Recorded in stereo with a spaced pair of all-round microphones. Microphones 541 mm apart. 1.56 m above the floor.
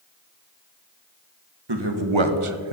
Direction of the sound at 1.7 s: 45° right (ahead or behind).